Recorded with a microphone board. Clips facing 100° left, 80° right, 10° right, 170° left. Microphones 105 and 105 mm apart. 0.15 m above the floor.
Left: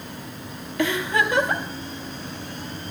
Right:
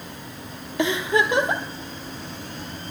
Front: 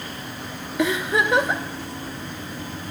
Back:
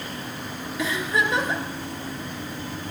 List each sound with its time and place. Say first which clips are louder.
0.8 s a giggle: right 1 dB, front 4 dB; 15° right, 1.0 m